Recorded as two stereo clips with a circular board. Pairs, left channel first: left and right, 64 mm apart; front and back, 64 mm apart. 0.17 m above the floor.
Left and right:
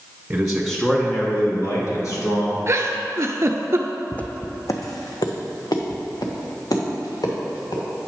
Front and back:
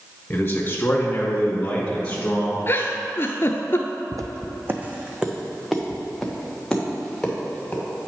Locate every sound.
0.3 s a man speaking: 30° right, 1.2 m; by 2.6 s 75° left, 2.5 m
2.7 s a giggle: 50° right, 0.6 m
4.1 s footsteps: 160° left, 0.6 m; by 7.8 s 75° left, 2.5 m